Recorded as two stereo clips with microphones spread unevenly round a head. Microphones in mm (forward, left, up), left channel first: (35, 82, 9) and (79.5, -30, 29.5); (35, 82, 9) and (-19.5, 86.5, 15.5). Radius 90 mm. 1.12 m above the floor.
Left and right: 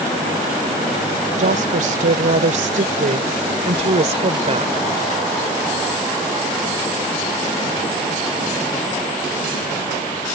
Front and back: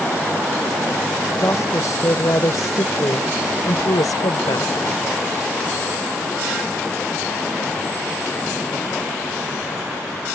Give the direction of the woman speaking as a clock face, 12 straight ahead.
2 o'clock.